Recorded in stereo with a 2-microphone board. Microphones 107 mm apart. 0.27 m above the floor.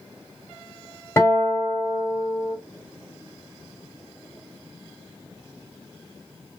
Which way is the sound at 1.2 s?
25° left (ahead or behind).